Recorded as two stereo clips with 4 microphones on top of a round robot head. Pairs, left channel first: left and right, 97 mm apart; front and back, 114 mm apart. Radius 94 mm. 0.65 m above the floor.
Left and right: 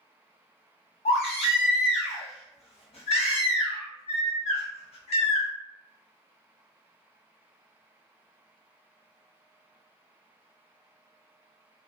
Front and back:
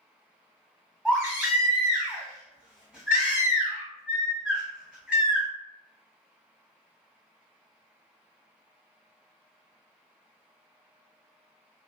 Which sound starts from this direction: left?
A baby crying, at 1.1 s.